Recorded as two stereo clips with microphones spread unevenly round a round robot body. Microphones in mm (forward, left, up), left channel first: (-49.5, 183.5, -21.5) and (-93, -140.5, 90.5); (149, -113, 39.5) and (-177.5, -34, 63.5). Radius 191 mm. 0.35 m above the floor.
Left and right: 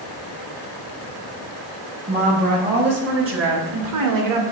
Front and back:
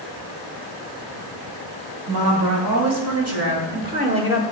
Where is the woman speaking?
170° right, 3 m; by 4.4 s 110° right, 1.4 m.